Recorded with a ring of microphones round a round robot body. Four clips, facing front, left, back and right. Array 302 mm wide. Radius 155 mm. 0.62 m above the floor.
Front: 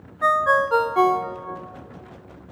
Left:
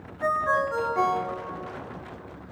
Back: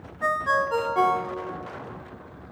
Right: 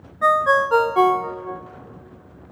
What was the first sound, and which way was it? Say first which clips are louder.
A ringtone: right 7 dB, front 5 dB; 70° right.